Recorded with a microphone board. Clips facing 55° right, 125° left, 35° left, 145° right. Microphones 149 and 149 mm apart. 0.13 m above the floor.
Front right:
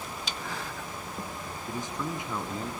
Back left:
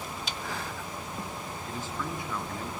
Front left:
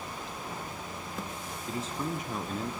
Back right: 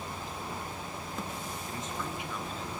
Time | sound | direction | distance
1.7 | a man speaking | 5° left | 1.2 m